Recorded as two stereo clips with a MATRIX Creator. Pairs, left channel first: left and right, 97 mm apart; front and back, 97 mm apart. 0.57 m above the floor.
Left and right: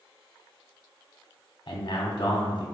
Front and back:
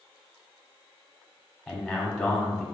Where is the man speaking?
95° left, 1.0 m.